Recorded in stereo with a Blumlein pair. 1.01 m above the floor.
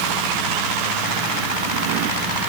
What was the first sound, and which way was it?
Only background noise.